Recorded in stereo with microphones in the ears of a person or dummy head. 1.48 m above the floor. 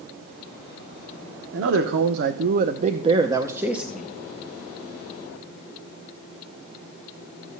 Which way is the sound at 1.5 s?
75° right (ahead or behind).